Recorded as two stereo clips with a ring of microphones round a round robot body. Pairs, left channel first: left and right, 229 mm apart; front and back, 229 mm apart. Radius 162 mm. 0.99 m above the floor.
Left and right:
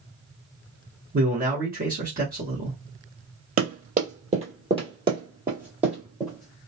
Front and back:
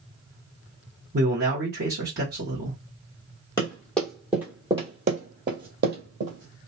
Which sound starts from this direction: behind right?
A man speaking, at 1.1 s.